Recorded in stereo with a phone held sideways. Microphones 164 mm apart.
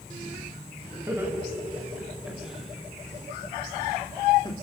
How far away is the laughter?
About 7.5 m.